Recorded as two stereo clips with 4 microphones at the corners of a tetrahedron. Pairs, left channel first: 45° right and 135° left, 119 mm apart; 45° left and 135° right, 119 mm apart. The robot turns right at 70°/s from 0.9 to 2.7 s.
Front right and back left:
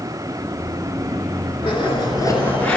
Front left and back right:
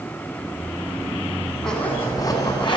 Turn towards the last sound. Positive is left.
turn(degrees=30)